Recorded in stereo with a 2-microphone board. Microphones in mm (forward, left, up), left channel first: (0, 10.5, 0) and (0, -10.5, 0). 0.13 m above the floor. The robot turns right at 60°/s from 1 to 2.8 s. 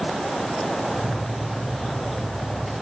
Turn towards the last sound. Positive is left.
No sound to turn to.